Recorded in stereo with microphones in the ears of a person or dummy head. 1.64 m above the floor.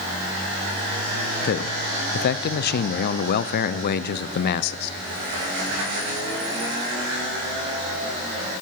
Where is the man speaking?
60° left (ahead or behind), 0.6 m.